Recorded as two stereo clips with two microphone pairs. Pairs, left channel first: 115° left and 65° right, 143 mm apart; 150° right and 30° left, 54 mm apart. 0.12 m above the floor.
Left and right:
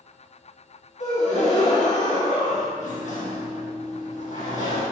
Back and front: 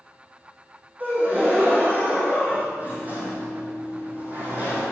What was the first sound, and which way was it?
A gasp, 85° left.